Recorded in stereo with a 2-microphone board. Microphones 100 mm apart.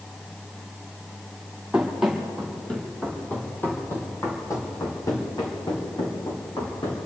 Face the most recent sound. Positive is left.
turn(degrees=55)  # may be behind; listen again after turning